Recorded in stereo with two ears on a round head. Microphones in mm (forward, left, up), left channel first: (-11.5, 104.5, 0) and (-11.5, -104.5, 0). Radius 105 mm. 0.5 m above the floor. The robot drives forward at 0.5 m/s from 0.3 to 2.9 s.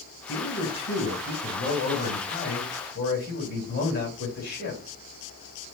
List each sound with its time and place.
0.3 s a man speaking: 60° left (ahead or behind), 2.5 m; by 4.8 s 45° left (ahead or behind), 3 m